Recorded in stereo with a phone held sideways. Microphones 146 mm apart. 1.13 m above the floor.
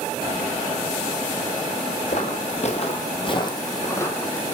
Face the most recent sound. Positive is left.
turn(degrees=10)  # may be behind; listen again after turning